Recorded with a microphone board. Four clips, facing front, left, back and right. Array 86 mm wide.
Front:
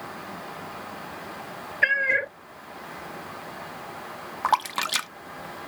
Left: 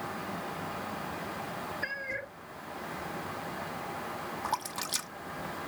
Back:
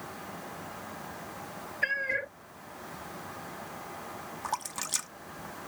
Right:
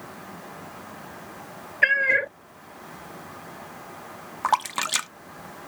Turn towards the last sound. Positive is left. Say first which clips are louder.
# right 13 dB, front 13 dB
turn(degrees=-45)